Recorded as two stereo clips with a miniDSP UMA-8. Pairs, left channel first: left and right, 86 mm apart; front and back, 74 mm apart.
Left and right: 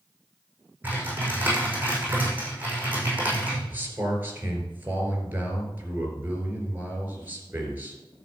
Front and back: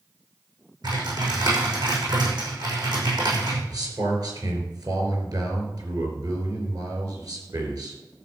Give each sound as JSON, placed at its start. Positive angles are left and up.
{"t": 0.8, "sound": "typing on a keyboard", "azimuth_deg": -160, "distance_m": 5.5}
{"t": 3.7, "sound": "a man speaking", "azimuth_deg": -155, "distance_m": 4.5}